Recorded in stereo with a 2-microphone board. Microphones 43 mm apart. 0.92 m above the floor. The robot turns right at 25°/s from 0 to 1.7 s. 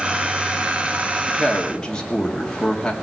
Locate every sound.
1.3 s a woman speaking: 10° left (ahead or behind), 2 m; by 2.9 s 20° left (ahead or behind), 2 m